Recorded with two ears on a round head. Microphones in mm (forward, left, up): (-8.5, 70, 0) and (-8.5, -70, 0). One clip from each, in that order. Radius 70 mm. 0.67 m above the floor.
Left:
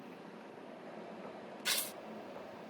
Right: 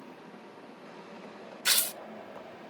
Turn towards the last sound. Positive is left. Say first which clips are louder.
# right 9 dB
turn(degrees=-50)  # may be behind; listen again after turning